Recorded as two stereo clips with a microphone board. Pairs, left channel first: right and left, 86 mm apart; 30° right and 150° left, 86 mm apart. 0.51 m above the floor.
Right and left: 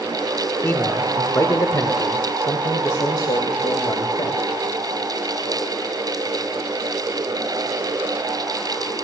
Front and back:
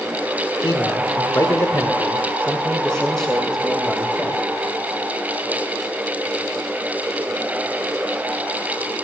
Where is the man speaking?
35° right, 1.4 m; by 4.4 s 125° right, 2.5 m.